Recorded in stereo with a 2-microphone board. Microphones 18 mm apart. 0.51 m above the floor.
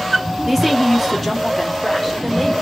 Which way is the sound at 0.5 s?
10° right (ahead or behind).